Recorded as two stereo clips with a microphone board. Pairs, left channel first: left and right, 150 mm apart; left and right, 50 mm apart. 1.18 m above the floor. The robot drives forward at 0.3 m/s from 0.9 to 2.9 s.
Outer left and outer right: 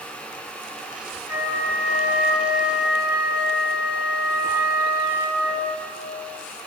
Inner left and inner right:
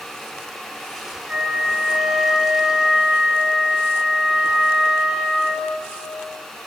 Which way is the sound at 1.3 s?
15° right (ahead or behind).